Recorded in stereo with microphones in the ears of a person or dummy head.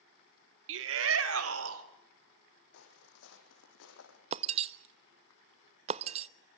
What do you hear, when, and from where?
0.7 s a shout: 70° right (ahead or behind), 1.9 m; by 1.8 s 85° right, 3.5 m
2.7 s footsteps: 65° left (ahead or behind), 4 m; by 4.2 s 75° left (ahead or behind), 4.5 m
4.3 s breaking glass: 40° right (ahead or behind), 0.7 m